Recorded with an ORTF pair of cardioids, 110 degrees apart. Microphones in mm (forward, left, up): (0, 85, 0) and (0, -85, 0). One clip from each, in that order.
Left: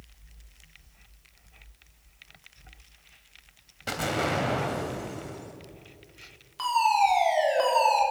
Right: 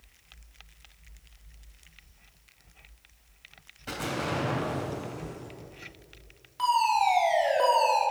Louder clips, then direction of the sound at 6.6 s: Left 1 dB; 15° left.